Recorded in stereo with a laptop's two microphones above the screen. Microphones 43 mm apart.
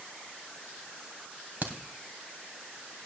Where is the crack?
45° right (ahead or behind), 2 m.